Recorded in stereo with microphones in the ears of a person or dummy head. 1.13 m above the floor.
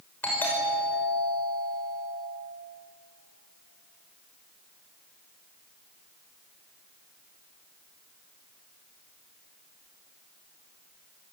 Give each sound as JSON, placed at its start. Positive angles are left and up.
{"t": 0.2, "sound": "a doorbell", "side_deg": 10, "distance_m": 6.5}